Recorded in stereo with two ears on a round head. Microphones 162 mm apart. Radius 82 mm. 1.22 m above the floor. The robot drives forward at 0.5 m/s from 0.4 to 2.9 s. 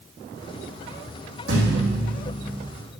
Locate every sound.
1.5 s a thud: 75° right (ahead or behind), 4.5 m